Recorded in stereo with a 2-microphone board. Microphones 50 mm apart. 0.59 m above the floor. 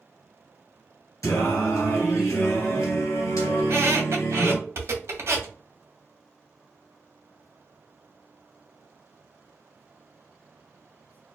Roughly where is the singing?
Left.